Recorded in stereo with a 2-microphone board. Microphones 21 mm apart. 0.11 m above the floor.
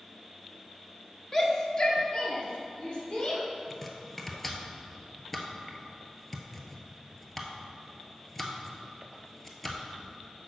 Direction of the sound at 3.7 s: 10° left (ahead or behind).